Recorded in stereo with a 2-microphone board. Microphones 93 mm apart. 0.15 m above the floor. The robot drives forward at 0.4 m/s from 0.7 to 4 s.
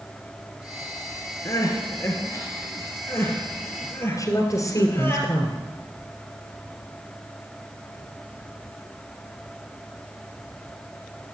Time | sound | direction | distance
1.4 | crying | 35° left (ahead or behind) | 2.5 m
4.2 | a woman speaking | 35° left (ahead or behind) | 2 m